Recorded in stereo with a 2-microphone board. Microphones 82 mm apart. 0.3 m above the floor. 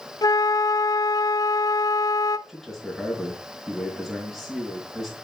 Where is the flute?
50° left (ahead or behind), 0.6 m.